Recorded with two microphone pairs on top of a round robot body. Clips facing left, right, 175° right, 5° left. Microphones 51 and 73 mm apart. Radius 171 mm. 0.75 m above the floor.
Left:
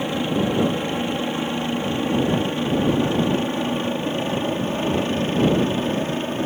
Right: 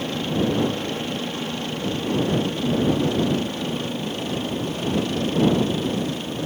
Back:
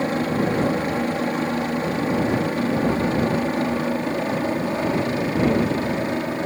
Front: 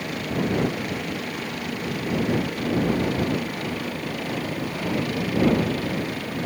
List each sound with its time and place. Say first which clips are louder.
0.0 s a helicopter: left 2 dB, back 5 dB; 155° left; by 6.5 s 140° left